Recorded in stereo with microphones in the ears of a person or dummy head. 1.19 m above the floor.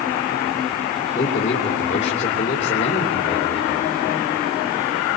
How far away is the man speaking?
About 3 m.